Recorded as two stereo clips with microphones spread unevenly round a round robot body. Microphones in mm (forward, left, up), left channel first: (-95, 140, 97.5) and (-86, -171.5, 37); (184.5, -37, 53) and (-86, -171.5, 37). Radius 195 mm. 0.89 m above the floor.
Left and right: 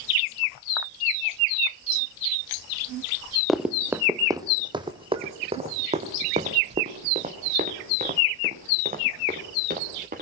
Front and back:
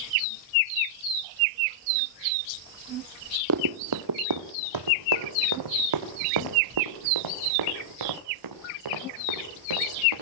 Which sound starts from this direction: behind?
Running footsteps, at 3.5 s.